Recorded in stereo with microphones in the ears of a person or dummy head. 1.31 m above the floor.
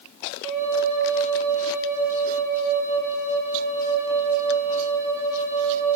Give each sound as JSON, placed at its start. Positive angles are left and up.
{"t": 0.4, "sound": "a flute", "side_deg": -35, "distance_m": 0.8}